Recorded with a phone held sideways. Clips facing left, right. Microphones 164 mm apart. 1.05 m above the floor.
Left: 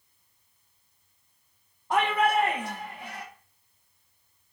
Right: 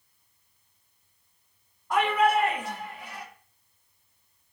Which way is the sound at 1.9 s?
25° left (ahead or behind).